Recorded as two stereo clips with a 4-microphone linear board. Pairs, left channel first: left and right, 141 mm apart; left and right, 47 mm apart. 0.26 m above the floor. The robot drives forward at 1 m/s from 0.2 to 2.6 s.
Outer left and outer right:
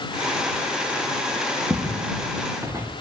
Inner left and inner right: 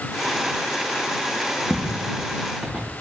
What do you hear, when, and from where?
1.7 s footsteps: 15° right (ahead or behind), 1.6 m; by 2.9 s 20° right (ahead or behind), 1.5 m